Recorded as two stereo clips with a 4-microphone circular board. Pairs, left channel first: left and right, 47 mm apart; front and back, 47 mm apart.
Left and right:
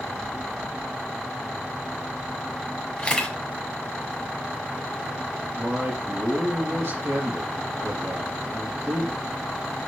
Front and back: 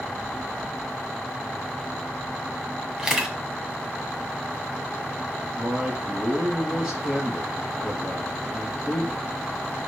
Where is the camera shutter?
115° left, 1.6 m.